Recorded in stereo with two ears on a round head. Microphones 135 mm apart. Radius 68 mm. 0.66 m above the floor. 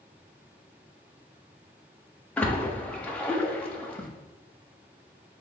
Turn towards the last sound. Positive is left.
turn(degrees=10)  # may be behind; listen again after turning